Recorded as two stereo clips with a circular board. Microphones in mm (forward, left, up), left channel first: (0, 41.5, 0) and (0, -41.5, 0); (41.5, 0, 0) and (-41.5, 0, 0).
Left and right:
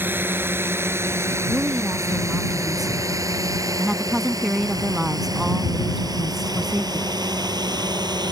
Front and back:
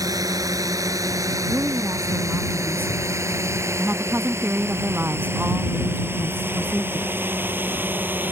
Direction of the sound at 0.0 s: 150° right.